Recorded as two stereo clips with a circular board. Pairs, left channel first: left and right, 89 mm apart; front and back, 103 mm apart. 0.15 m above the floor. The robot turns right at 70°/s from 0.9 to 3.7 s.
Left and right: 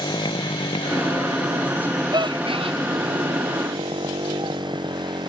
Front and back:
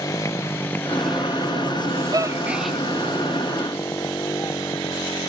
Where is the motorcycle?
60° left; by 5.3 s 55° right.